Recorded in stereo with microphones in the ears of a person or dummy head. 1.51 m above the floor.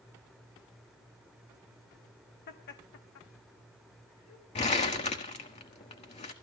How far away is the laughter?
About 1.6 m.